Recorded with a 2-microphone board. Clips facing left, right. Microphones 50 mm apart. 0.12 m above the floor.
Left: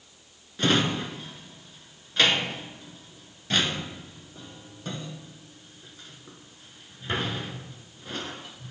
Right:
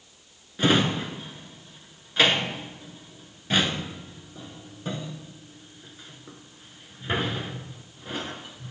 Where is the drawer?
10° right (ahead or behind), 0.5 m.